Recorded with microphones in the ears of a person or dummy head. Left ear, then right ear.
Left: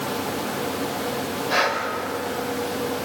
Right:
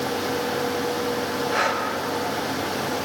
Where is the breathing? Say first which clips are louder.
Left 2 dB; 25° left (ahead or behind), 5 m.